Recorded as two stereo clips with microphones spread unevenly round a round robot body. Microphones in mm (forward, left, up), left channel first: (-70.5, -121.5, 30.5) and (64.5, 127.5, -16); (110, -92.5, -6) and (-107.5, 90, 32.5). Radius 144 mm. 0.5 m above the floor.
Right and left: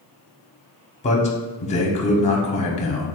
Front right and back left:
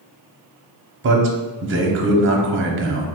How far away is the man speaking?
About 0.9 m.